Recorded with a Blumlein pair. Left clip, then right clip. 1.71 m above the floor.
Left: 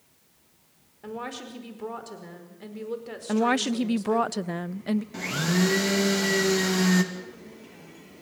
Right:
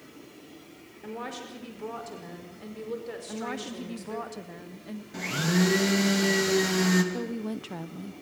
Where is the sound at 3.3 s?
60° left, 0.8 m.